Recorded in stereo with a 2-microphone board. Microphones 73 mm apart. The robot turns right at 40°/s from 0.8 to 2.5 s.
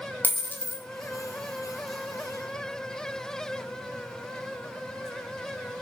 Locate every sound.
0.2 s a dropped coin: 25° left (ahead or behind), 0.5 m; by 0.8 s 30° left (ahead or behind), 0.5 m